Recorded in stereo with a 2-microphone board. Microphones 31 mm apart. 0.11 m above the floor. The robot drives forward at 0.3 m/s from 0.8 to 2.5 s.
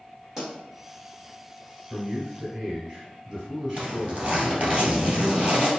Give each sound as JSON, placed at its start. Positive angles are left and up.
{"t": 0.4, "sound": "a pop", "side_deg": -5, "distance_m": 1.5}
{"t": 1.9, "sound": "a man speaking", "side_deg": -30, "distance_m": 1.7}
{"t": 3.8, "sound": "a zipper", "side_deg": -40, "distance_m": 1.7}